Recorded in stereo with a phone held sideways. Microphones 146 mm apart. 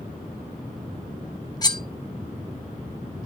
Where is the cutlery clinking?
25° left (ahead or behind), 0.6 m.